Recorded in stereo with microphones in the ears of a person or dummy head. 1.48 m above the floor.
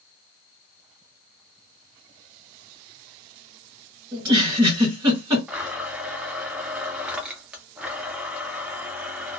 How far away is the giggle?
About 1.4 m.